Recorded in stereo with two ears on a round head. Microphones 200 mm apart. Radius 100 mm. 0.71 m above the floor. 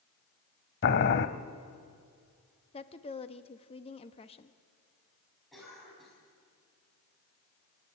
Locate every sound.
0.8 s boiling: 50° left (ahead or behind), 0.9 m
2.7 s a woman speaking: 25° left (ahead or behind), 0.8 m
5.5 s a cough: centre (ahead or behind), 5.5 m